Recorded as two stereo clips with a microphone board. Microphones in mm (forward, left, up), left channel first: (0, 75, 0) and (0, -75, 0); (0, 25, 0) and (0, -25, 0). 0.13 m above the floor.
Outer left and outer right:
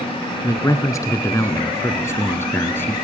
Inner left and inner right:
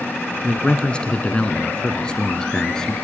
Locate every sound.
0.4 s a man speaking: 20° left (ahead or behind), 1.4 m; by 2.9 s 15° left (ahead or behind), 1.7 m